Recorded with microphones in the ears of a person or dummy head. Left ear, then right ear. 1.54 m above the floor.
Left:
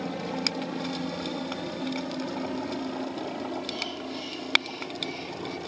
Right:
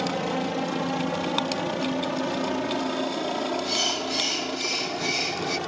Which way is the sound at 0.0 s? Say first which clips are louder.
Right 4 dB; 30° right (ahead or behind).